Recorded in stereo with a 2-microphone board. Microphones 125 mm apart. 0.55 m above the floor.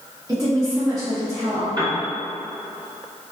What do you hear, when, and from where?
0.3 s a woman speaking: 25° right (ahead or behind), 1.3 m
1.8 s a piano: 35° right (ahead or behind), 1.5 m